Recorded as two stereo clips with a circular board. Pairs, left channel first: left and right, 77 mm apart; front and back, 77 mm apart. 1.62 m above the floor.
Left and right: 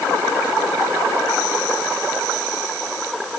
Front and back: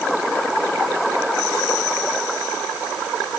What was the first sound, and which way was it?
Only background noise.